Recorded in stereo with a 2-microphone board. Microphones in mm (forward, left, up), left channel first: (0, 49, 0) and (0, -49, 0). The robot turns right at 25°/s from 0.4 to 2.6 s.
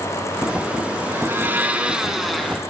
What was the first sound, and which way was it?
A blender, 30° right.